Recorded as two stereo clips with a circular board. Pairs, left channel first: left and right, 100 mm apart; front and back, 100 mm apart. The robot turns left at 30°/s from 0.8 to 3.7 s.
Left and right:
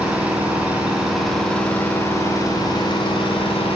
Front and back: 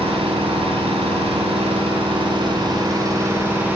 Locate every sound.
0.0 s an engine running: 170° right, 3.5 m; by 3.8 s 105° left, 3.5 m